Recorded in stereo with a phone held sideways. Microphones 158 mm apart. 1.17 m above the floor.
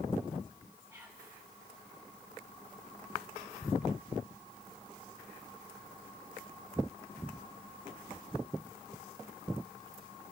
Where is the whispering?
20° right (ahead or behind), 4 m.